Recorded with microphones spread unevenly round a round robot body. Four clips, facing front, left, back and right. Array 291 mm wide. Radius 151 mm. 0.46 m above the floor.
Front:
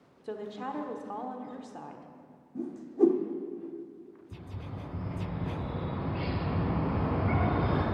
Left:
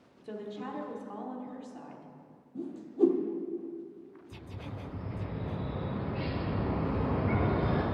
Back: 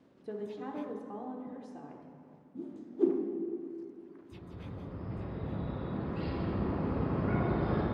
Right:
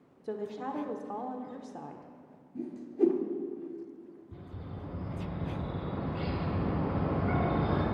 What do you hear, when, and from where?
0.2 s a woman speaking: 80° right, 1.0 m
2.5 s a whoosh: 5° right, 0.9 m
4.3 s a bird: 30° right, 4.5 m